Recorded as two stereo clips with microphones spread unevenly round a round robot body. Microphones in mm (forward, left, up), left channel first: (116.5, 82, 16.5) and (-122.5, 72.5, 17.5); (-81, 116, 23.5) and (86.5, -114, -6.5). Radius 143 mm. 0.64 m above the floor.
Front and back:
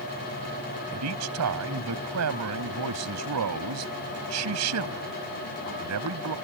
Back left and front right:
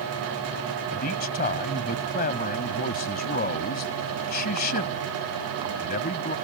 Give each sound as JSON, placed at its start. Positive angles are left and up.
{"t": 0.9, "sound": "a man speaking", "azimuth_deg": -175}